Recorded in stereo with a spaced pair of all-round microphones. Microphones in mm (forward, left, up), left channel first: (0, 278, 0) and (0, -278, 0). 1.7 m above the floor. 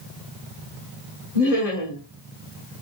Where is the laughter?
85° left, 1.7 m.